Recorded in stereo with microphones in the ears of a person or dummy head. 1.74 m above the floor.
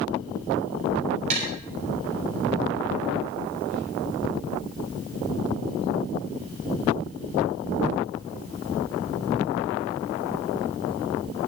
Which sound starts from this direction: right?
Tapping, at 1.3 s.